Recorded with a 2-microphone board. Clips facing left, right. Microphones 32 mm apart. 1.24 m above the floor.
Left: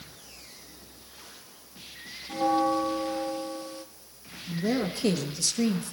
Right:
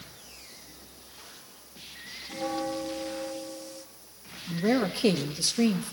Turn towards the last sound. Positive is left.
turn(degrees=-25)  # may be behind; listen again after turning